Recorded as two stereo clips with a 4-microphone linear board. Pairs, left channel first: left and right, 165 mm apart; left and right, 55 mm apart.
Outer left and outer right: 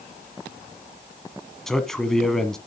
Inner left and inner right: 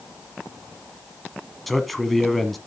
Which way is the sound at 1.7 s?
Centre (ahead or behind).